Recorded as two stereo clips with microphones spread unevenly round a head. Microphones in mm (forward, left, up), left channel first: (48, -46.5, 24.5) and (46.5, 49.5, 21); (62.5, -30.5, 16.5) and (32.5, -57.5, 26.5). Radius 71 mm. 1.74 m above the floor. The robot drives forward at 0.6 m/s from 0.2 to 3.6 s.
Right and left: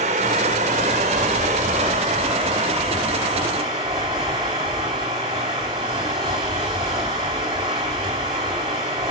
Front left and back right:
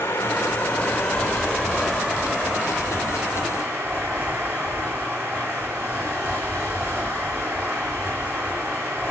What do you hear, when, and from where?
0.0 s running water: 115° left, 1.5 m; by 9.1 s 155° left, 3 m